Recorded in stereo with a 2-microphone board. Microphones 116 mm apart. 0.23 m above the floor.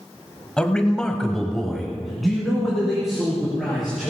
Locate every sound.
0.6 s a man speaking: 10° left (ahead or behind), 1.2 m; by 4.1 s 5° right (ahead or behind), 4.5 m